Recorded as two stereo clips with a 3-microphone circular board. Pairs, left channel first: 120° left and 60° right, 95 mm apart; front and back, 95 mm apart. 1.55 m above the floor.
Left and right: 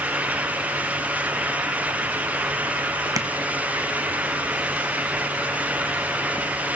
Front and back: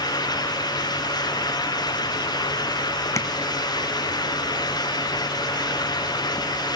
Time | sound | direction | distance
3.2 | tapping | 35° right | 1.4 m